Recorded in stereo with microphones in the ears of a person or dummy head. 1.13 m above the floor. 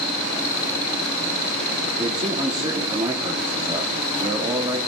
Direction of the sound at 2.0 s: 20° right (ahead or behind).